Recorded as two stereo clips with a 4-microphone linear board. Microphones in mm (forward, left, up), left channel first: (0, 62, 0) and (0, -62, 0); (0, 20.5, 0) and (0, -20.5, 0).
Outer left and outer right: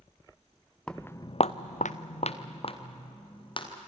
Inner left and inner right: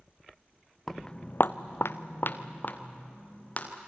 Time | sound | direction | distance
0.9 | footsteps | 5° left (ahead or behind) | 1.0 m